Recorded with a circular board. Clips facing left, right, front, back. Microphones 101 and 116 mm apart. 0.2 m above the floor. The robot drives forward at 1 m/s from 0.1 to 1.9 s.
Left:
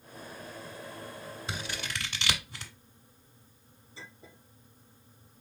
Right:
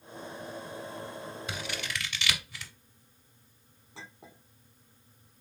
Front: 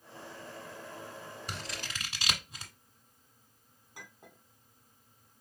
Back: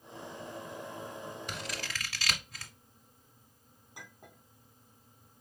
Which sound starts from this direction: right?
A clink, at 4.0 s.